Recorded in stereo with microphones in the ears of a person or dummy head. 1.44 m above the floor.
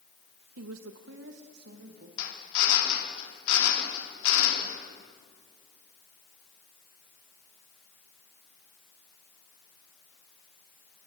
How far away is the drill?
About 4 m.